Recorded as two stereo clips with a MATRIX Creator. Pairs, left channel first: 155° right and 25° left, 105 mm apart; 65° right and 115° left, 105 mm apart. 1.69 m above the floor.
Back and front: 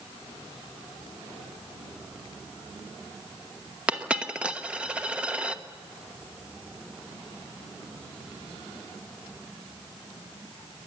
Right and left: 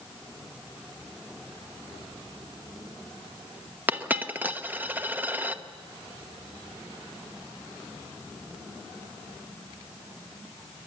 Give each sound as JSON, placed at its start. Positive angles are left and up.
{"t": 3.9, "sound": "a dropped coin", "azimuth_deg": 80, "distance_m": 1.0}